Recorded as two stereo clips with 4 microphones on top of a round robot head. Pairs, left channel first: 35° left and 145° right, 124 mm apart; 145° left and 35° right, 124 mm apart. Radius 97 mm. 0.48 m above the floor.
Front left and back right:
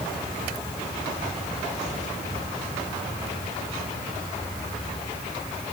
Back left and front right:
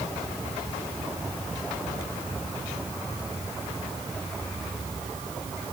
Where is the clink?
I don't hear a clink.